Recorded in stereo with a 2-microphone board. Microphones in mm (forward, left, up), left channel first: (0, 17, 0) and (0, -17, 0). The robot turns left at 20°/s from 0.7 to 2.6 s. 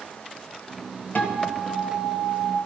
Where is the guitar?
55° left (ahead or behind), 2.0 m; by 2.6 s 85° left, 2.0 m.